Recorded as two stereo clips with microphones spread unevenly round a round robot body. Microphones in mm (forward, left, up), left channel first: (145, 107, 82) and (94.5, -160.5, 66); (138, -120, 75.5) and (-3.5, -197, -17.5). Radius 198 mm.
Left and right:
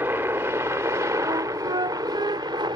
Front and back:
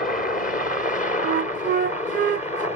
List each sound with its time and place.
0.0 s a helicopter: 25° right; by 2.8 s 40° right
1.2 s a flute: straight behind